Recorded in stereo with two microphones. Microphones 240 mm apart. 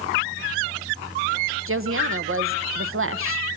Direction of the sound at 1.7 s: 60° right (ahead or behind).